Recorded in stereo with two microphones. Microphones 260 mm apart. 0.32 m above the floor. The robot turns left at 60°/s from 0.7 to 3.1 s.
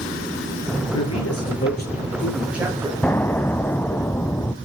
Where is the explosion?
5° left (ahead or behind), 0.6 m; by 4.5 s 10° left (ahead or behind), 0.6 m.